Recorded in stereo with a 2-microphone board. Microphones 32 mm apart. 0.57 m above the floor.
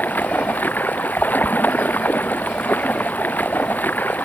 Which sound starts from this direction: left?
Running water, at 0.0 s.